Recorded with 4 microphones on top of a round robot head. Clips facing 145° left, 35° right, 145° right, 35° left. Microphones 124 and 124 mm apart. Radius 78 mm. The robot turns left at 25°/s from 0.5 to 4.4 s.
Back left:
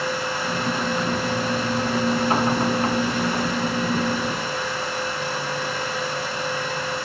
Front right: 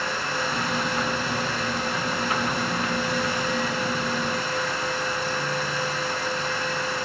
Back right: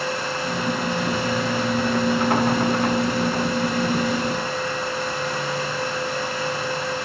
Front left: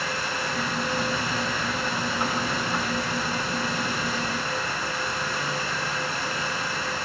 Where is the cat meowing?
I don't hear a cat meowing.